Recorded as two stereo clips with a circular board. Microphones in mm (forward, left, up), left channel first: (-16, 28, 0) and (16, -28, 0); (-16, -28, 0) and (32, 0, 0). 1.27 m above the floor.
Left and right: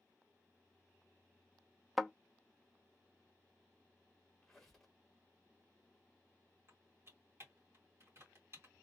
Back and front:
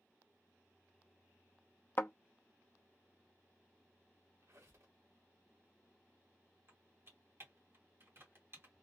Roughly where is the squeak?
Ahead left.